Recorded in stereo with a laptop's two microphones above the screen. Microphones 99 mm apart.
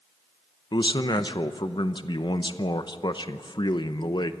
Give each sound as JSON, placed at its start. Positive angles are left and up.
{"t": 0.7, "sound": "a man speaking", "side_deg": 50, "distance_m": 0.8}